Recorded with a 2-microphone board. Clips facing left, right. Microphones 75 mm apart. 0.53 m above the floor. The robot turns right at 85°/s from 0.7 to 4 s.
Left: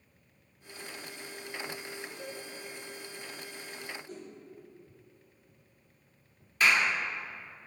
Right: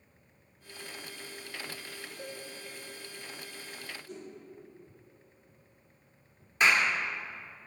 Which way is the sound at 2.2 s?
70° right (ahead or behind).